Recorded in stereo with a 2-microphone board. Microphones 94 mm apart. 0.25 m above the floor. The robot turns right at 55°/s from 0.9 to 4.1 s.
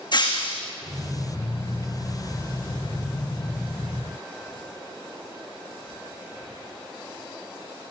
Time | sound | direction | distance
0.1 | breaking glass | 55° left (ahead or behind) | 4 m